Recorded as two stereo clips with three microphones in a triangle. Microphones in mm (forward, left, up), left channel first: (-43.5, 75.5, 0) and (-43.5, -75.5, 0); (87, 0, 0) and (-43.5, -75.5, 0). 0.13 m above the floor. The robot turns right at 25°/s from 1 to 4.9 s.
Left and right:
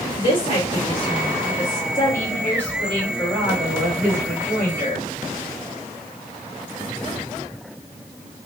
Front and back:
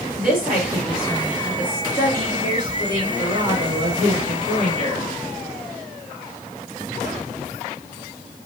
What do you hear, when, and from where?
0.2 s a woman speaking: 125° left, 1.9 m; by 5.0 s 140° right, 1.9 m